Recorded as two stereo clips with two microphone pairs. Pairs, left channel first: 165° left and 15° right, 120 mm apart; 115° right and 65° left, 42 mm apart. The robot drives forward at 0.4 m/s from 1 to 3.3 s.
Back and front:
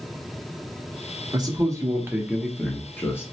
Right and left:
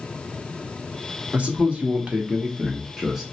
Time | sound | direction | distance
1.3 | a man speaking | 20° left | 0.9 m